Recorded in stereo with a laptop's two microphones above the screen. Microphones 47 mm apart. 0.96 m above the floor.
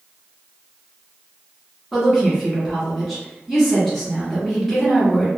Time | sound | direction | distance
1.9 | a woman speaking | 5° left (ahead or behind) | 1.2 m